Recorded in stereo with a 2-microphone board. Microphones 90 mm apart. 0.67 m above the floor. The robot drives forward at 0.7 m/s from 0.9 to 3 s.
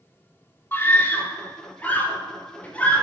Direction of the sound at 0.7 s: 25° left (ahead or behind).